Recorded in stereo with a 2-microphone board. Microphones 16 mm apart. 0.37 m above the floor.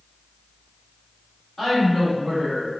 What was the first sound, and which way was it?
A woman speaking, 20° left (ahead or behind).